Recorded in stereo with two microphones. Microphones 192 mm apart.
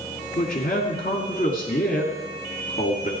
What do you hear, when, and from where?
0.4 s a man speaking: 50° left (ahead or behind), 2.0 m